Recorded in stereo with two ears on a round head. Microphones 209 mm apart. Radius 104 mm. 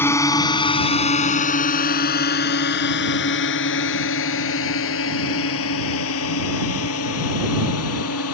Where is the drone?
10° left (ahead or behind); by 8.3 s 70° left (ahead or behind).